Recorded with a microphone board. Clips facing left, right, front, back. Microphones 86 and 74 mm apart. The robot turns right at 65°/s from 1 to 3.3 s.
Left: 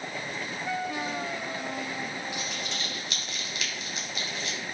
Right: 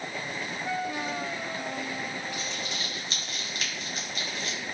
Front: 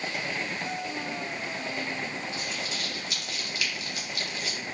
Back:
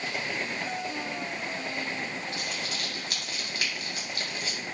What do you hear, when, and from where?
2.3 s crumpling: 165° left, 3 m; by 4.6 s 135° right, 3 m